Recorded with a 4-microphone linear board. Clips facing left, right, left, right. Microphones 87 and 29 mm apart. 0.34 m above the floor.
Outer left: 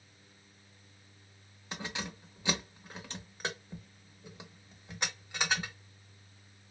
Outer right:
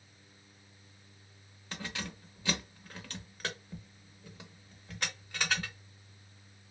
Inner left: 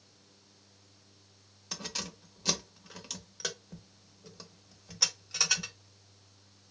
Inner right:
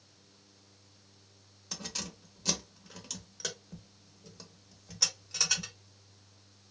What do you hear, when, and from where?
1.7 s keys jangling: 20° left (ahead or behind), 0.5 m